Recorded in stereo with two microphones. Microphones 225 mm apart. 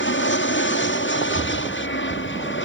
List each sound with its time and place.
0.0 s an aircraft: 55° left (ahead or behind)
1.3 s an explosion: 50° right (ahead or behind)